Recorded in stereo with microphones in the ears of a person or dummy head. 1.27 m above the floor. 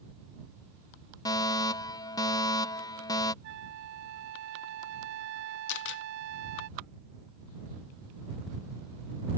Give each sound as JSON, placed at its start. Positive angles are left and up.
{"t": 1.2, "sound": "a fire alarm", "side_deg": 15}
{"t": 3.4, "sound": "a flute", "side_deg": -65}
{"t": 5.7, "sound": "a camera shutter", "side_deg": 60}